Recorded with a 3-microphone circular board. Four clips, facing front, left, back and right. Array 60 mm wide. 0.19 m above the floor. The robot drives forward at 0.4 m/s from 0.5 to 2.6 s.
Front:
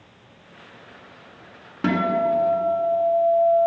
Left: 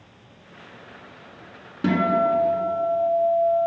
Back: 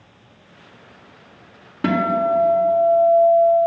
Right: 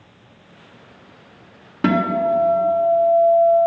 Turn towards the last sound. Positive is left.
turn(degrees=-105)